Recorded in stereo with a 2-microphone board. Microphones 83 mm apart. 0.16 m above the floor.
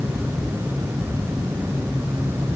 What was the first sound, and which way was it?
Only background noise.